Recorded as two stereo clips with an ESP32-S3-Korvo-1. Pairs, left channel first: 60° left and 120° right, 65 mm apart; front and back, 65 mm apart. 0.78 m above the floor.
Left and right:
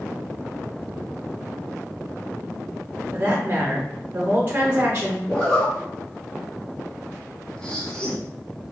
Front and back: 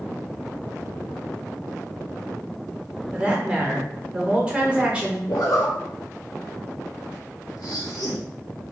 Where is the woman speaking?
120° right, 0.8 m.